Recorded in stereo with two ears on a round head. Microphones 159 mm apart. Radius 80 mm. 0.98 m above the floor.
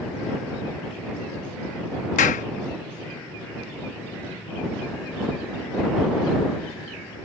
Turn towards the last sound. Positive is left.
turn(degrees=45)  # may be behind; listen again after turning